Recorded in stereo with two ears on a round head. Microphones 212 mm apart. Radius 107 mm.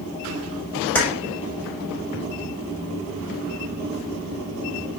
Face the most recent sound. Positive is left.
turn(degrees=10)  # may be behind; listen again after turning